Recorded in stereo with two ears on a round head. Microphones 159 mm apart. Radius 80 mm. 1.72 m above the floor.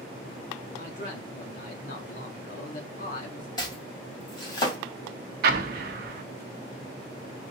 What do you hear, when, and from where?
0.8 s a man speaking: 45° left (ahead or behind), 1.7 m
3.6 s chopping: 25° left (ahead or behind), 2.5 m
5.4 s an explosion: 60° right (ahead or behind), 0.8 m